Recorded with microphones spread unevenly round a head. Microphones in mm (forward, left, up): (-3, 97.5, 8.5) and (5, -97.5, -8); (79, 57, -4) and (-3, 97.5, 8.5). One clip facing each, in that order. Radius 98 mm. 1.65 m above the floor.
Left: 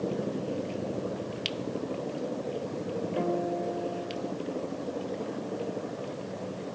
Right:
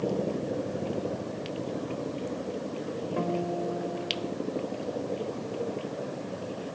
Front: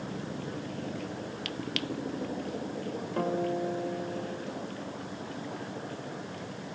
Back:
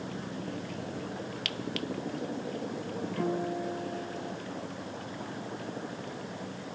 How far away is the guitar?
About 3.5 m.